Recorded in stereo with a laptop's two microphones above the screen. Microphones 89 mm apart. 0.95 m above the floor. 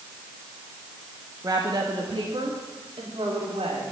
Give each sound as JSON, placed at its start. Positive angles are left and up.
{"t": 1.4, "sound": "a woman speaking", "side_deg": -40, "distance_m": 1.2}